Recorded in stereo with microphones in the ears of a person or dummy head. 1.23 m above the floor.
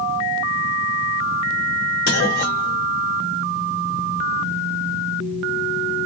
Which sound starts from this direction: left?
A clunk, at 2.1 s.